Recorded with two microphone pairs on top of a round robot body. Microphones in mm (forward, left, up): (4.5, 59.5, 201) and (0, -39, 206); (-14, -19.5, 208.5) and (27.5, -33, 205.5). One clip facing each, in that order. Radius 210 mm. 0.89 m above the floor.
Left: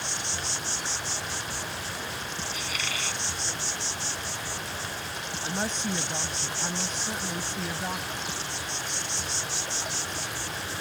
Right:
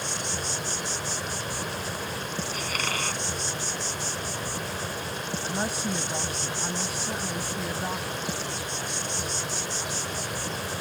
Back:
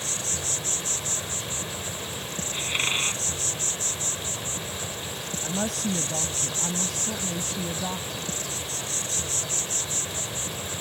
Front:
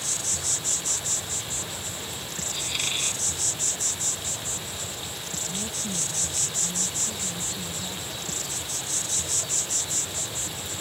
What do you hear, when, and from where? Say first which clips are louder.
0.0 s an insect: right 3 dB, back 1 dB; 140° right
2.5 s a squeak: right 4 dB, back 4 dB; 140° right
5.4 s a woman speaking: even, back 7 dB; 175° right